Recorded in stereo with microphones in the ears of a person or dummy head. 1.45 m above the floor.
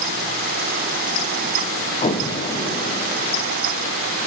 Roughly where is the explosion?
Left.